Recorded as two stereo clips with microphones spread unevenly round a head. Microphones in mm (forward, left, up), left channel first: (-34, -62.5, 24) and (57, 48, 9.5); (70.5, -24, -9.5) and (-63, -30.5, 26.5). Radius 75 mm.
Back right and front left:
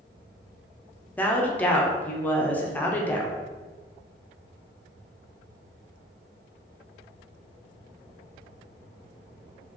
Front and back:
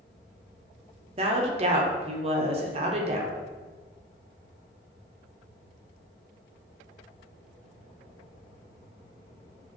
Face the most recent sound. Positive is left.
turn(degrees=150)